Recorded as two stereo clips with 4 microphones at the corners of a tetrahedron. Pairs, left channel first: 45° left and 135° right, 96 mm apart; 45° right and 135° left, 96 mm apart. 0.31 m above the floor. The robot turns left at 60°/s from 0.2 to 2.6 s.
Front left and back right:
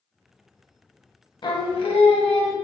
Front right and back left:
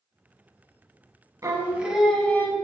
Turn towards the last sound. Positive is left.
turn(degrees=10)